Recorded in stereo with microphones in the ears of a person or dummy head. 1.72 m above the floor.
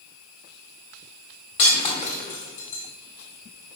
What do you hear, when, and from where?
1.6 s breaking glass: 45° left (ahead or behind), 2 m